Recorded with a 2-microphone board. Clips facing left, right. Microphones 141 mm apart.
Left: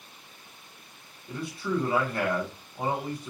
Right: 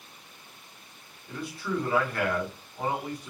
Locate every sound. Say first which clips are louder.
1.3 s a man speaking: left 2 dB; 25° left (ahead or behind), 1.1 m